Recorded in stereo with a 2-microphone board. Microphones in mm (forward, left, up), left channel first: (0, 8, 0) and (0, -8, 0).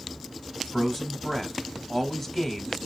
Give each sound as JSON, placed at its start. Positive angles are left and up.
{"t": 0.6, "sound": "a man speaking", "side_deg": 5, "distance_m": 1.3}